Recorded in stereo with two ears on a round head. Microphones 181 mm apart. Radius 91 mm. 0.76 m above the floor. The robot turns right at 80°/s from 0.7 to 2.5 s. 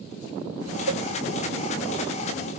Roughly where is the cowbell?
Right.